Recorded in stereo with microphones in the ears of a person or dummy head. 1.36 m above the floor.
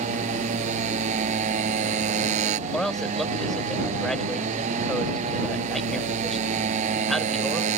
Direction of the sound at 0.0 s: 35° right (ahead or behind).